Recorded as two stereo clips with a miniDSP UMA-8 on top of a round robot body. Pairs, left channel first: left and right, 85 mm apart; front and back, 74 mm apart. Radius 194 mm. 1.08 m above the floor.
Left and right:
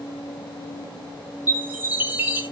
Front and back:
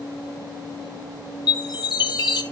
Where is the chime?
20° right, 1.1 m.